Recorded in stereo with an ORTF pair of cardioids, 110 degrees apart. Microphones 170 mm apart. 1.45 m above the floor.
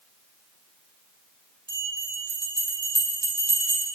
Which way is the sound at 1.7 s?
30° right.